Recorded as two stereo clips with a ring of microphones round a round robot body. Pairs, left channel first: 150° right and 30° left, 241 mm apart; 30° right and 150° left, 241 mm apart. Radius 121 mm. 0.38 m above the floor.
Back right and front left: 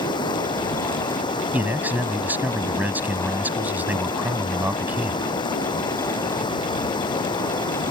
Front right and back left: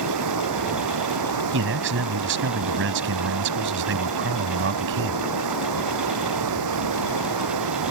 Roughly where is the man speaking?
Behind left.